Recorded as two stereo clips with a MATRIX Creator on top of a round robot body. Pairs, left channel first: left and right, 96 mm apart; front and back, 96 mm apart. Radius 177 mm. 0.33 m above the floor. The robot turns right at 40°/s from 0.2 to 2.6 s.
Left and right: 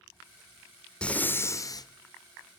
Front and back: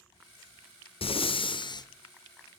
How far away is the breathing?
About 0.6 m.